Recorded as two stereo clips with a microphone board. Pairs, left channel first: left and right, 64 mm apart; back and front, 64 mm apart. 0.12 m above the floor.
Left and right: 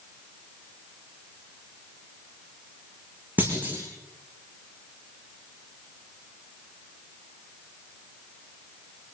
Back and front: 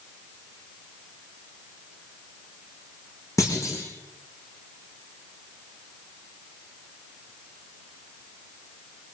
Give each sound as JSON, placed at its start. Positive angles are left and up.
{"t": 3.4, "sound": "a clunk", "azimuth_deg": -150, "distance_m": 8.5}